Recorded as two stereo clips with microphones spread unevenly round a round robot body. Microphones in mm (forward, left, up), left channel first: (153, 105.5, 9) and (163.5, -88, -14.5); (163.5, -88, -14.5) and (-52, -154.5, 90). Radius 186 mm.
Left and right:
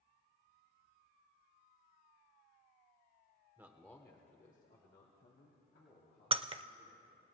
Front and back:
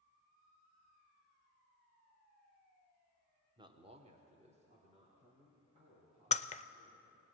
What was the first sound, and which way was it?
A man speaking, 55° right.